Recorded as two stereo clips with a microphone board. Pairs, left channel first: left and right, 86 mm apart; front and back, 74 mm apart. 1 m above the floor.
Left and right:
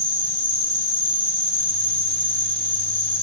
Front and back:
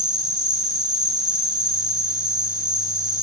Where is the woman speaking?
No woman speaking in this recording.